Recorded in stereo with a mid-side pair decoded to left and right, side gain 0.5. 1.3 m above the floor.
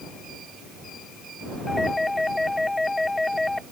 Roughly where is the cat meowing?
I don't hear a cat meowing.